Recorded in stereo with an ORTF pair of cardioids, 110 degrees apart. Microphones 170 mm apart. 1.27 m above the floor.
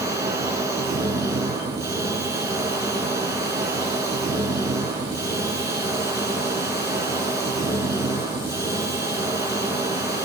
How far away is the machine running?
About 5 m.